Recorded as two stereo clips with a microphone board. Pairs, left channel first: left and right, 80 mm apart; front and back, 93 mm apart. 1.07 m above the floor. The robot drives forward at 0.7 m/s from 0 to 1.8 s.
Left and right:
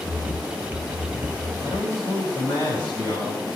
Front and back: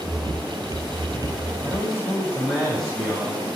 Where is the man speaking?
85° left, 10 m.